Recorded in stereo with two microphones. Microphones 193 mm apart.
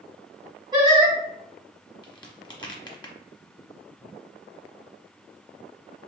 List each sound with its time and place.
0.7 s singing: 25° right (ahead or behind), 1.3 m
2.0 s a crack: 20° left (ahead or behind), 0.8 m